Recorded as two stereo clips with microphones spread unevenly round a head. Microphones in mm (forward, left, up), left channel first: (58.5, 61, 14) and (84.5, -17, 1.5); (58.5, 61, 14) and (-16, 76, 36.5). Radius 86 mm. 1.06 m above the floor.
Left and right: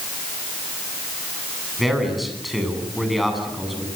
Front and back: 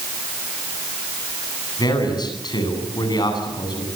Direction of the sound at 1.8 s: 20° left.